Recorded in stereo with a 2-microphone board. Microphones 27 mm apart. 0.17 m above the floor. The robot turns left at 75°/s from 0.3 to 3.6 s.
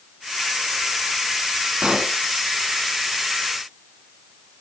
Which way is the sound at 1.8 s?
35° right (ahead or behind).